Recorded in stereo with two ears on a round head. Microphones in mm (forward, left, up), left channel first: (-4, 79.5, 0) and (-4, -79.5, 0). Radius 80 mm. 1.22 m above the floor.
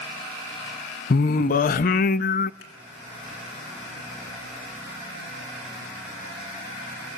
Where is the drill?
No drill in this recording.